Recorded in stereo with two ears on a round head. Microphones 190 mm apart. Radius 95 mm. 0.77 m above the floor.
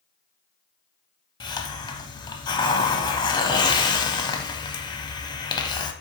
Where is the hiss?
20° left (ahead or behind), 0.8 m.